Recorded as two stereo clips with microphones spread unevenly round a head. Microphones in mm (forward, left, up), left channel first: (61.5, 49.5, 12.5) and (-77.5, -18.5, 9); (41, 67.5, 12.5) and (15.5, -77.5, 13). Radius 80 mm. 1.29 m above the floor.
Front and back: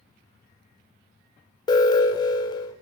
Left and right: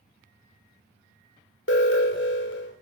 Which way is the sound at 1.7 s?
90° left.